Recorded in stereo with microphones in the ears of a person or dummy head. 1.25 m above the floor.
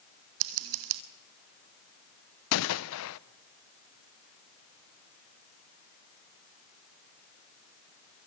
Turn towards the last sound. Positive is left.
turn(degrees=75)  # may be behind; listen again after turning